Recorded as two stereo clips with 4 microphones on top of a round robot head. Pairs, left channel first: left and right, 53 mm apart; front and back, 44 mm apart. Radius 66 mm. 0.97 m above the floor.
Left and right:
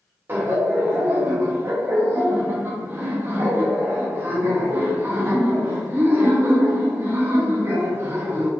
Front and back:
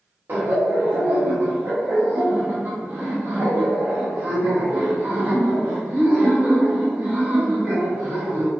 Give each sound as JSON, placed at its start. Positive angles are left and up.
{"t": 0.3, "sound": "laughter", "azimuth_deg": -135, "distance_m": 1.4}